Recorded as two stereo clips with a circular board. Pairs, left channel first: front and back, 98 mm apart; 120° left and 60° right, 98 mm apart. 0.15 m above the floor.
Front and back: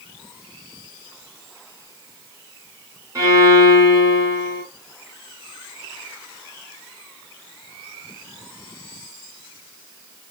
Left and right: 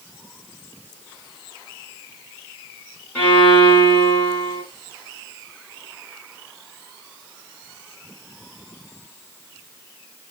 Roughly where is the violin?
Behind.